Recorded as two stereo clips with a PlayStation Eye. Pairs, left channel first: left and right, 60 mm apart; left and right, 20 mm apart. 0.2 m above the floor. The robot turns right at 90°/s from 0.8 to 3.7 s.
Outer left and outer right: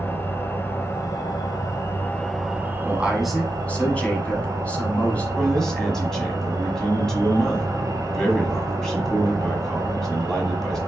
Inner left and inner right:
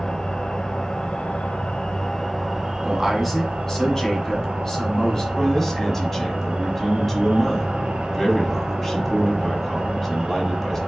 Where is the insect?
35° left, 0.9 m; by 10.9 s 65° right, 0.9 m.